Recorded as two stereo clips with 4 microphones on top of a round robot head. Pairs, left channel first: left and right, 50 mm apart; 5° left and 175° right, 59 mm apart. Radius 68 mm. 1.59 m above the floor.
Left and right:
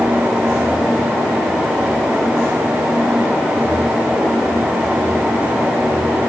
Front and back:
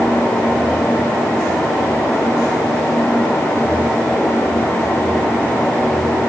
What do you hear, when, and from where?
Only background noise.